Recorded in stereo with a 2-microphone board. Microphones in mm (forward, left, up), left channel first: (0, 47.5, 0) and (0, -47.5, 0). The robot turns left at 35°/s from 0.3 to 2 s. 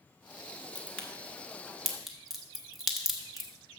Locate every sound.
0.8 s a crack: 15° left (ahead or behind), 1.2 m; by 3.5 s centre (ahead or behind), 1.2 m